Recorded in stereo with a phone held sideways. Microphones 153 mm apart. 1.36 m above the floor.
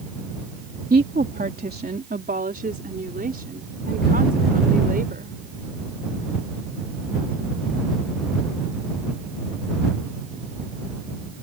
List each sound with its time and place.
0.9 s a woman speaking: 80° right; by 5.4 s 75° right (ahead or behind)